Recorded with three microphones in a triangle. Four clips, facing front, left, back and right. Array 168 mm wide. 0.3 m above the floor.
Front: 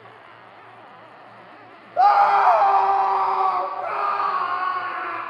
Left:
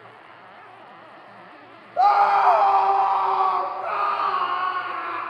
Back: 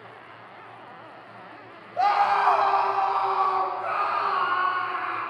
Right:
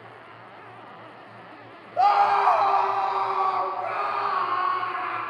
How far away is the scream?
About 1.2 m.